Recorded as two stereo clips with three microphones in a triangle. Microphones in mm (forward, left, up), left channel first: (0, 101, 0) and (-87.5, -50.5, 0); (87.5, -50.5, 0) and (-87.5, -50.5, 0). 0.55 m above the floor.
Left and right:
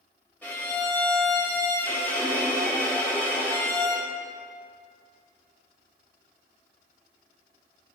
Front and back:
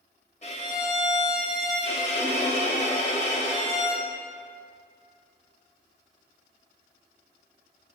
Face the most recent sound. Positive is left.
turn(degrees=-15)